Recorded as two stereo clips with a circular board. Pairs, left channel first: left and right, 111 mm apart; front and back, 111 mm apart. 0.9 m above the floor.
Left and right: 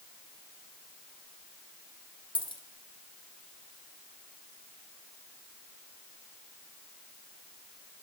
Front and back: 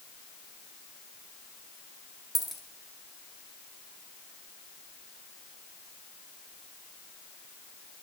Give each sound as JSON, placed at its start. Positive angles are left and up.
{"t": 2.4, "sound": "a dropped coin", "azimuth_deg": 90, "distance_m": 1.2}